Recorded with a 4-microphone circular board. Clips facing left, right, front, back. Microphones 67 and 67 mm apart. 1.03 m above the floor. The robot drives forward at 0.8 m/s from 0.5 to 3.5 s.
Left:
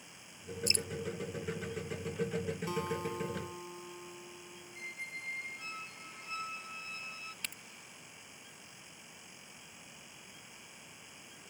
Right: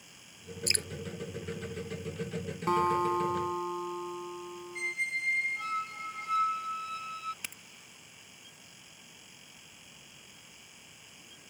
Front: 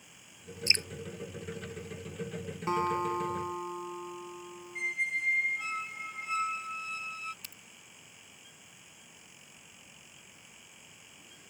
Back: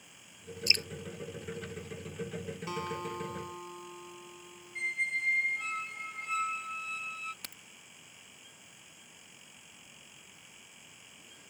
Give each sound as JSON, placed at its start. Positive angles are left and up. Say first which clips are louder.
{"t": 0.7, "sound": "dripping", "louder": "right 2 dB, front 1 dB", "azimuth_deg": -65}
{"t": 2.7, "sound": "a guitar", "louder": "right 14 dB, front 9 dB", "azimuth_deg": -55}
{"t": 4.8, "sound": "a squeak", "louder": "right 11 dB, even", "azimuth_deg": -85}
{"t": 7.4, "sound": "a crack", "louder": "even, back 3 dB", "azimuth_deg": -170}